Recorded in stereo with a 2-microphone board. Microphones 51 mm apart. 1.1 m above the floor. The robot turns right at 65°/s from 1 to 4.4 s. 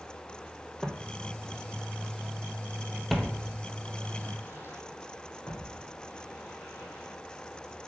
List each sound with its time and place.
0.8 s footsteps: 5° right (ahead or behind), 1.5 m; by 7.9 s 55° left (ahead or behind), 4 m